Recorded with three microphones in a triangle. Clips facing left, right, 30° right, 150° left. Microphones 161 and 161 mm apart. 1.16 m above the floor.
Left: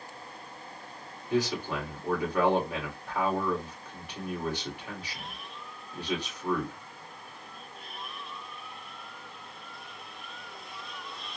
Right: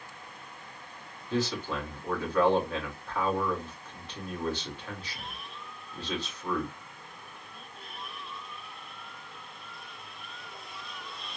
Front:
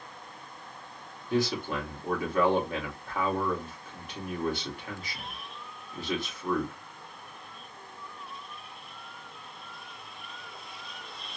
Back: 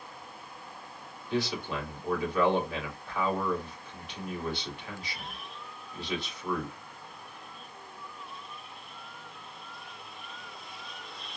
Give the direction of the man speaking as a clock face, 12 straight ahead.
12 o'clock.